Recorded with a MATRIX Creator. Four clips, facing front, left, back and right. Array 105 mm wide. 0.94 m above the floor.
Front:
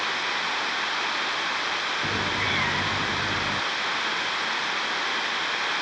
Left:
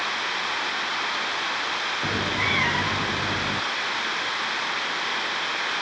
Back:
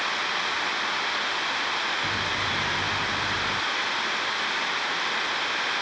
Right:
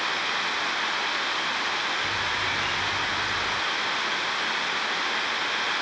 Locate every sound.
2.0 s a cat meowing: 70° left